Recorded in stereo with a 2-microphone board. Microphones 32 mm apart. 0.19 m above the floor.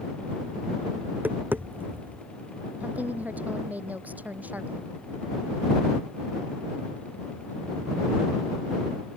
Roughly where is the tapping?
Right.